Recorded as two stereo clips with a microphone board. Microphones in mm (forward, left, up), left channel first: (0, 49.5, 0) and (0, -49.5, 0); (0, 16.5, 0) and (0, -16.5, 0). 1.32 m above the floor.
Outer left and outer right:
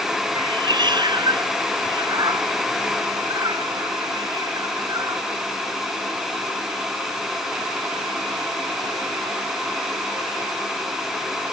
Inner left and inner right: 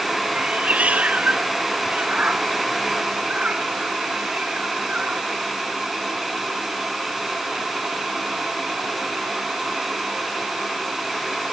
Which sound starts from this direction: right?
A cat meowing, at 0.3 s.